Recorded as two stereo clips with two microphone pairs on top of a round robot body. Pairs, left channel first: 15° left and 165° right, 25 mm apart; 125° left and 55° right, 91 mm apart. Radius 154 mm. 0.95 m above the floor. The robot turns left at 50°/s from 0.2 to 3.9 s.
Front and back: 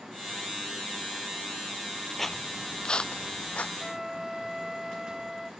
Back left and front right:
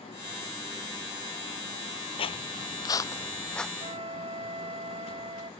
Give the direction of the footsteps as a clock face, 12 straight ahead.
8 o'clock.